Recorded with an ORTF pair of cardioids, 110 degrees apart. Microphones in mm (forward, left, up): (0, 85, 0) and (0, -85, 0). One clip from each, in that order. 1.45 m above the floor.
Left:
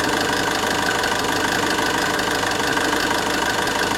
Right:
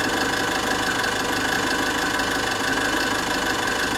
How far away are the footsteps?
I don't hear footsteps.